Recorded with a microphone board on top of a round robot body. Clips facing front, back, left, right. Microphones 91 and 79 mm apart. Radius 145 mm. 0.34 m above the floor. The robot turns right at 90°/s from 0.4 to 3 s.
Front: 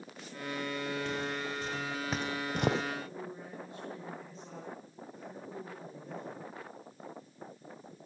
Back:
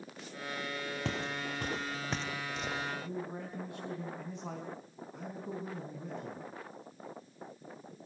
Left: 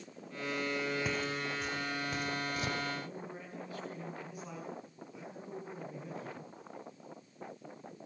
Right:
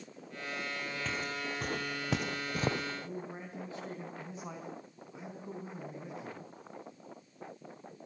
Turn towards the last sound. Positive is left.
turn(degrees=-155)